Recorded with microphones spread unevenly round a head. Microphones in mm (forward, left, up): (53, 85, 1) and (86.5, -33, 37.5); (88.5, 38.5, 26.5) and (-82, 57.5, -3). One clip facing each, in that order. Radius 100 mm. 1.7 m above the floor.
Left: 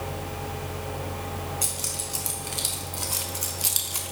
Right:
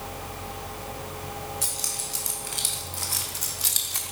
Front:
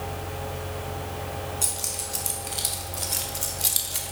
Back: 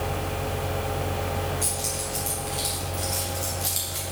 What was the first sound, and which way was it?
Keys jangling, 35° left.